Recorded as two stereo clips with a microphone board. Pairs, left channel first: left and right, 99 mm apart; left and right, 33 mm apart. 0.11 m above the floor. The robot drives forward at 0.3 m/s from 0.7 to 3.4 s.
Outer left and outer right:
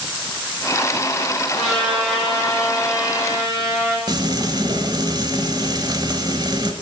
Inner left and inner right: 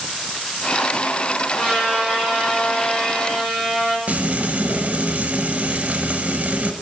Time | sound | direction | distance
1.6 | a trumpet | centre (ahead or behind) | 4 m
4.1 | frying | 45° right (ahead or behind) | 0.9 m